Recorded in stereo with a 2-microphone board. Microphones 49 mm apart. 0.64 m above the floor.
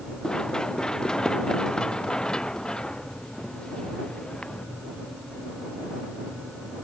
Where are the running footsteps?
15° left (ahead or behind); by 4.7 s 20° left (ahead or behind).